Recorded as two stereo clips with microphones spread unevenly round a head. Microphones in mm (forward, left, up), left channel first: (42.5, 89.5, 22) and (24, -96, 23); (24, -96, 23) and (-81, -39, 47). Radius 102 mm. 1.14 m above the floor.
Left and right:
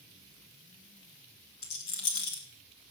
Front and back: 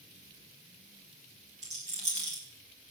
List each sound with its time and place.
1.6 s a rattle: 100° left, 3.5 m